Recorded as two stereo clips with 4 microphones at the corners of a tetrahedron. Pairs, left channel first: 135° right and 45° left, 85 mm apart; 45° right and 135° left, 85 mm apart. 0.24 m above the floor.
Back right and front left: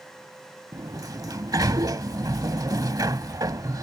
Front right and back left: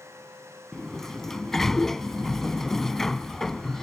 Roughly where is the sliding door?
Ahead left.